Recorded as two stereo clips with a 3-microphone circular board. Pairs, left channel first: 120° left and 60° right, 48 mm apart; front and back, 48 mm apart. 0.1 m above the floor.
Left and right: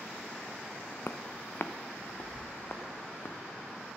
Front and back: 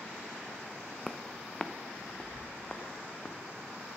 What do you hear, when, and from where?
1.1 s footsteps: 85° left, 0.6 m; by 3.4 s 70° left, 2 m